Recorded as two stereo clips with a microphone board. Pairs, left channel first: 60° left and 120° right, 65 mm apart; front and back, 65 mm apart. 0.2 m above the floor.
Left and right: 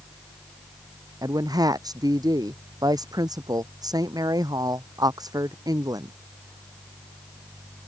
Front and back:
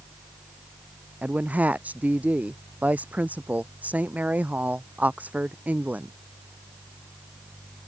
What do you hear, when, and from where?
1.2 s a woman speaking: 115° right